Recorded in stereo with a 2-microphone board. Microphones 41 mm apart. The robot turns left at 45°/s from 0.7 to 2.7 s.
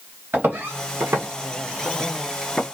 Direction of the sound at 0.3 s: 60° right (ahead or behind).